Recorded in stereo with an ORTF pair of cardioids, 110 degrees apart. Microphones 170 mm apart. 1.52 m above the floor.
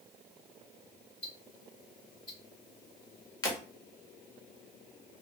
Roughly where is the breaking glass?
Ahead left.